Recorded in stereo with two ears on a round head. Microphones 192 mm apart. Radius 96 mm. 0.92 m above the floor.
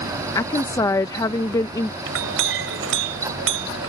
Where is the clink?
65° right (ahead or behind).